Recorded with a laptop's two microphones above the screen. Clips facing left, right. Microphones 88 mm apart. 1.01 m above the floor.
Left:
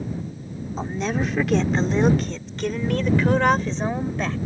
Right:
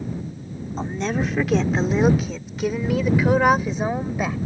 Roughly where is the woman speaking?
Centre.